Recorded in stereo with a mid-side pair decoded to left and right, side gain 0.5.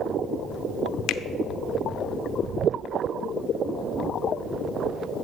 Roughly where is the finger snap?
Left.